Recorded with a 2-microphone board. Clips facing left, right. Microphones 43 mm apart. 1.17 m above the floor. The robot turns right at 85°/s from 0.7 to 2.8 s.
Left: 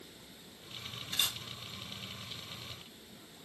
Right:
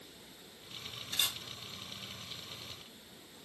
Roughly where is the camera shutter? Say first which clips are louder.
Even; centre.